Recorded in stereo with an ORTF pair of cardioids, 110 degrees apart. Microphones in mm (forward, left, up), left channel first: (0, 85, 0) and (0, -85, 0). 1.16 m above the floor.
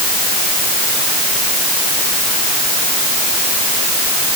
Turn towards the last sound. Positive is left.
No sound to turn to.